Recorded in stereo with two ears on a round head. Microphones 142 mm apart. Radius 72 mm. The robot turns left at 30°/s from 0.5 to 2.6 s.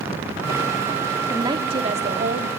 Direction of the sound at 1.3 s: 20° right.